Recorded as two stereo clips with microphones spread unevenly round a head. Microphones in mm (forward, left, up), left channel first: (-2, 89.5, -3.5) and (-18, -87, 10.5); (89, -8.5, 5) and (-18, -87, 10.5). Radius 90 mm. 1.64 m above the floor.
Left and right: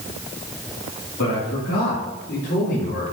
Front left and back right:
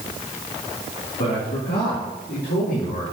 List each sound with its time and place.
1.2 s a man speaking: 75° left, 3 m; by 3.0 s 45° left, 4 m